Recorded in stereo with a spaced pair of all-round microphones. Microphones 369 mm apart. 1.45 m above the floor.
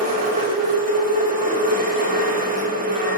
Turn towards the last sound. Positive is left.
turn(degrees=-20)  # may be behind; listen again after turning